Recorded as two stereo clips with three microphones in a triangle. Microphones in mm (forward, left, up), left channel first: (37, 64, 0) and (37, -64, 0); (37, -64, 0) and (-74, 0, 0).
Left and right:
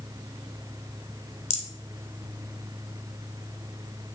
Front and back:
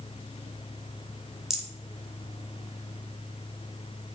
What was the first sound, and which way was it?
A rattle, 65° left.